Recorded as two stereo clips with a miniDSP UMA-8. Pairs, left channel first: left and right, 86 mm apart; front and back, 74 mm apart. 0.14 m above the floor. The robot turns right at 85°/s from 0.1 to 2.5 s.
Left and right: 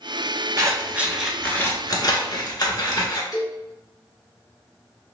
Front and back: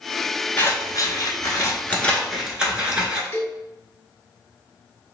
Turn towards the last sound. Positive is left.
turn(degrees=55)